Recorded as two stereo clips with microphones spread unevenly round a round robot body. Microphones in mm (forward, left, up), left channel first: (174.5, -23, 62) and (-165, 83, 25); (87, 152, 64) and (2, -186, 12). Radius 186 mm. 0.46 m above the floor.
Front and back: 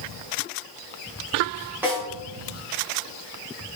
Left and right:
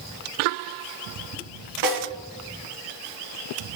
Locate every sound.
1.8 s a snare drum: 115° right, 4 m